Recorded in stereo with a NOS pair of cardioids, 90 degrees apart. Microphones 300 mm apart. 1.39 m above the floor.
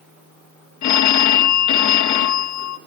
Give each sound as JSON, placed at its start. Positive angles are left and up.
{"t": 0.8, "sound": "a phone ringing", "azimuth_deg": 60, "distance_m": 1.3}